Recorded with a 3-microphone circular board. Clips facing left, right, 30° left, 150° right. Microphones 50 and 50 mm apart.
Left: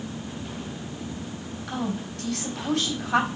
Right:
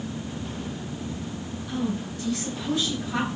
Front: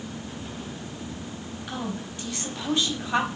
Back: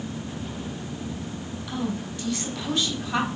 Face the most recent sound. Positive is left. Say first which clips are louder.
# right 1 dB, back 3 dB
turn(degrees=90)